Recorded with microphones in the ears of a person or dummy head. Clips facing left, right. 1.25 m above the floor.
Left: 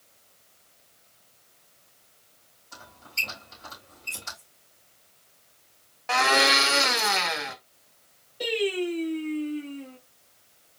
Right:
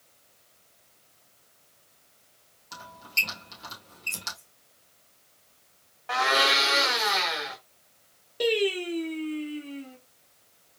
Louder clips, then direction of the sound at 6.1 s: Left 3 dB; 45° left (ahead or behind).